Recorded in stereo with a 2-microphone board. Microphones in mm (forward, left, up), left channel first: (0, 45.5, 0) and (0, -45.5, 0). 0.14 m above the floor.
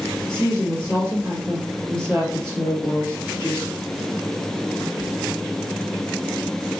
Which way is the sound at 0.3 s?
30° right (ahead or behind).